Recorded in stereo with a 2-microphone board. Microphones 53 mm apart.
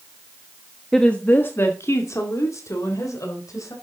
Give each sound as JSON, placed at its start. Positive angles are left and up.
{"t": 0.9, "sound": "a woman speaking", "side_deg": 10, "distance_m": 1.1}